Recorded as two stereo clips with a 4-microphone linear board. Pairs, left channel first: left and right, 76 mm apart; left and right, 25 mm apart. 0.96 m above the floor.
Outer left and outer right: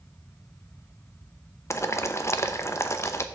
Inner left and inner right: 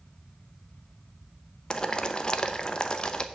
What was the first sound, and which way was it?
Boiling, 35° left (ahead or behind).